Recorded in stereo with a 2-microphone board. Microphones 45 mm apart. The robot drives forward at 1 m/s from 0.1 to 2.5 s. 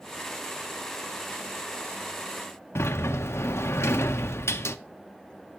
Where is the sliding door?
85° left, 0.5 m.